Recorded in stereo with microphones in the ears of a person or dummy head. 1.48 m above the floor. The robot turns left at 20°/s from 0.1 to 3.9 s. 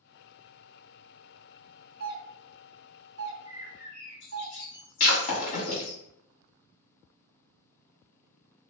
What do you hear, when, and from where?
2.0 s a doorbell: 50° right (ahead or behind), 1.0 m; by 4.5 s 60° right (ahead or behind), 1.0 m
3.5 s a bird: 45° left (ahead or behind), 0.8 m; by 6.0 s 55° left (ahead or behind), 0.8 m
5.0 s breaking glass: 45° left (ahead or behind), 1.7 m